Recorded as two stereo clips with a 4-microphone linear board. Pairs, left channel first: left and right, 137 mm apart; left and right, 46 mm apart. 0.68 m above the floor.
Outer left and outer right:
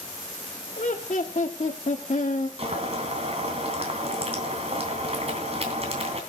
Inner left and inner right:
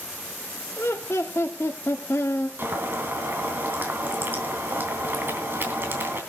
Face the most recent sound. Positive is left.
turn(degrees=-45)  # may be behind; listen again after turning